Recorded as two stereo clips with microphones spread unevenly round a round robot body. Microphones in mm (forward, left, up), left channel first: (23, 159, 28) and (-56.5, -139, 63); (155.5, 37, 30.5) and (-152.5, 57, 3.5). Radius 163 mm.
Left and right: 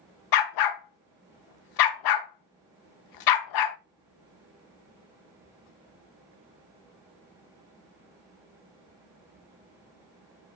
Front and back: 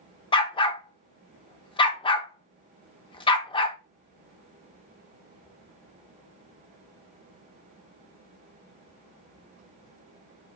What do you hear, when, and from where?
0.3 s a dog barking: 75° left, 0.5 m